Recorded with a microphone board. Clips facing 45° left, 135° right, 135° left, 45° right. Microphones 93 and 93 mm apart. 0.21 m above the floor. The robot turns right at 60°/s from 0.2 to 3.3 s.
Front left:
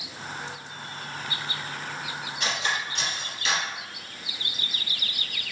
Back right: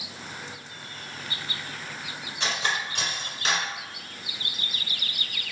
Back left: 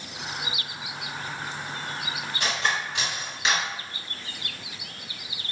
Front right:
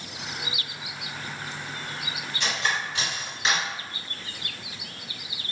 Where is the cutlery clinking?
170° left, 1.7 m; by 3.7 s 135° right, 1.7 m.